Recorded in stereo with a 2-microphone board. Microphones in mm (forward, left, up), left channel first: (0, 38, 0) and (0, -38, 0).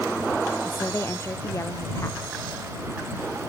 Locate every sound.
0.6 s a woman speaking: 35° left (ahead or behind); by 2.4 s 40° left (ahead or behind)